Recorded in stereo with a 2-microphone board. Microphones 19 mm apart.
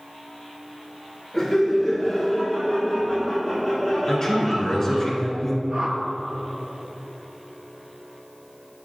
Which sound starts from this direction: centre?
Laughter, at 1.3 s.